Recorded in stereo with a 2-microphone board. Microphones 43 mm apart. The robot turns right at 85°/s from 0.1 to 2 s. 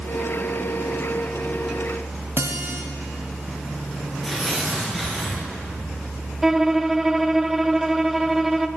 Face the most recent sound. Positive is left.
turn(degrees=-5)  # may be behind; listen again after turning